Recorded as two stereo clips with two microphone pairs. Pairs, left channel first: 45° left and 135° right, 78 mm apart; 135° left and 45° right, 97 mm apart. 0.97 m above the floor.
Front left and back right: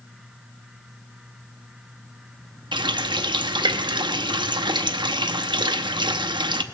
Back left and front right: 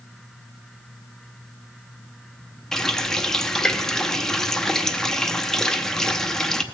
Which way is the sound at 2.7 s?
140° right.